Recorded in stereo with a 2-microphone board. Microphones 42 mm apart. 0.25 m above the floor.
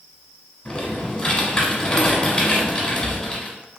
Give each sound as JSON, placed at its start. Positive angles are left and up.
{"t": 0.7, "sound": "typing on a keyboard", "side_deg": 20, "distance_m": 0.9}